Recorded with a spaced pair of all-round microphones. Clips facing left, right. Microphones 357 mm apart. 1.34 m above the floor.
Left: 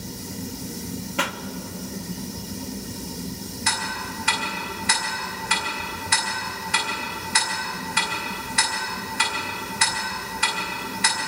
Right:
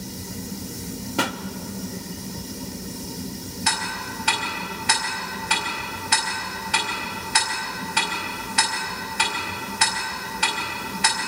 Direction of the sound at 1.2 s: 55° right (ahead or behind).